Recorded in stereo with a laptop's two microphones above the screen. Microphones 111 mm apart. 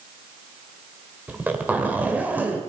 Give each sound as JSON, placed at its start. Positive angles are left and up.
{"t": 1.3, "sound": "a zipper", "side_deg": -15, "distance_m": 2.0}